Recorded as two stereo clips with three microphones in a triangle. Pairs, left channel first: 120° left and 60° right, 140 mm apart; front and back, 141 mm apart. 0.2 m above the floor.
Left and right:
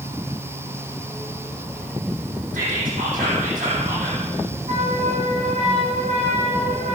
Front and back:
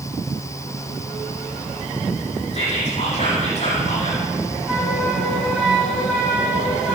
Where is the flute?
95° right, 8.5 m.